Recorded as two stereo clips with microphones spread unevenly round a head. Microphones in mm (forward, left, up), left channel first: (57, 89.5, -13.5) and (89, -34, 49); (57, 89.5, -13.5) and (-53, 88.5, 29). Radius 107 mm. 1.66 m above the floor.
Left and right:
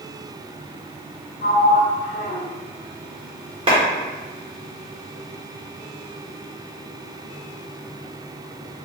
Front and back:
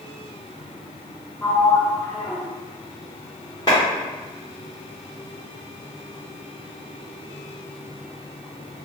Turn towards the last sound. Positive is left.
turn(degrees=-80)